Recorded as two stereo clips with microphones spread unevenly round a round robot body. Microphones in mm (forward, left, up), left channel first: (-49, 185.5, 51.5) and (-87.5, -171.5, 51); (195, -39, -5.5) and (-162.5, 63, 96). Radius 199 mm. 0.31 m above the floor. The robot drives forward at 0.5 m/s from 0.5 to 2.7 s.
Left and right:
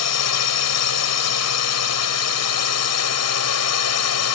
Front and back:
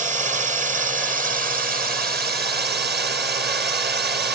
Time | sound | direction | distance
0.0 | a drone | 85° left | ?